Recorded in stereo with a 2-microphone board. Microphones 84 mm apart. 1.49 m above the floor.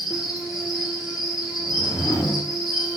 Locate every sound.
0.0 s an insect: 5° right (ahead or behind), 0.9 m
1.6 s a whoosh: 35° left (ahead or behind), 1.9 m